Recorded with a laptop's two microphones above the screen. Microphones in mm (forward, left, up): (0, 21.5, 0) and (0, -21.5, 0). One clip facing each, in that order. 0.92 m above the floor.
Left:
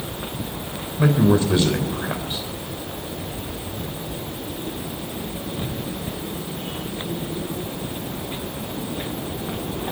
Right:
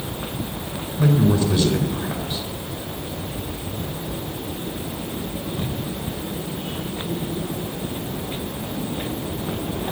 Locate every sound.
1.0 s a man speaking: 30° left (ahead or behind), 4.5 m